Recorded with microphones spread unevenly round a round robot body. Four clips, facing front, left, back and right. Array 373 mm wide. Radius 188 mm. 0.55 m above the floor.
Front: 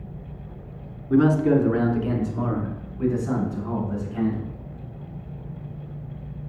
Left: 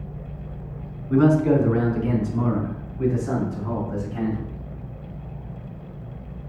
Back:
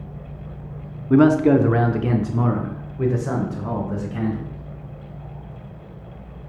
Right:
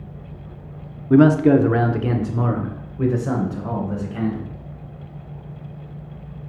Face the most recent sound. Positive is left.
turn(degrees=-135)